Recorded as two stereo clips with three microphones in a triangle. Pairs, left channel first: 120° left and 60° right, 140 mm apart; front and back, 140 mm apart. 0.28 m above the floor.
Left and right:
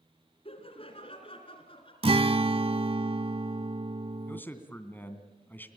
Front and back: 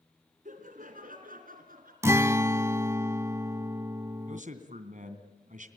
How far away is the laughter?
About 2.5 m.